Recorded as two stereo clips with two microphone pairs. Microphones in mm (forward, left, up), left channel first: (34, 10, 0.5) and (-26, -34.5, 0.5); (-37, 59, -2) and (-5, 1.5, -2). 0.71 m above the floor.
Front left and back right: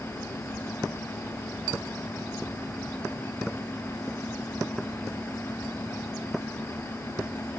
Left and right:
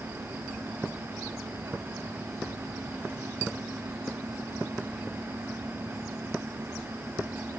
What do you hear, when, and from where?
Only background noise.